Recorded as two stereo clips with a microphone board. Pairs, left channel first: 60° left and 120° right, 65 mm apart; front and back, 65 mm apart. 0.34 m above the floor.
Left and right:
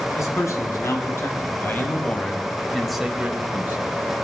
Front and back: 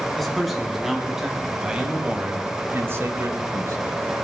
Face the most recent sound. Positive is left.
turn(degrees=-170)